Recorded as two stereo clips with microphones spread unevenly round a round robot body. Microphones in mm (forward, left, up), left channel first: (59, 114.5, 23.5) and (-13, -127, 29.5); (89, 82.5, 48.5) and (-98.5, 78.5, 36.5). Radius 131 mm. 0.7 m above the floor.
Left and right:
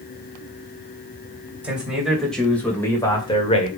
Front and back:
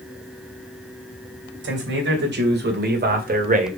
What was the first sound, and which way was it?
A man speaking, 170° left.